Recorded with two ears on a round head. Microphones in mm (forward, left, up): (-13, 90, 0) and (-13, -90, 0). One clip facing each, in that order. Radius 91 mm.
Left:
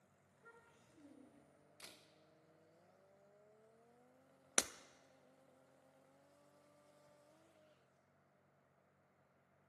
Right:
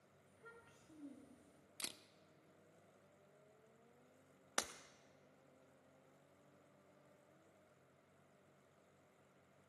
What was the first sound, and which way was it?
A child speaking, 45° right (ahead or behind).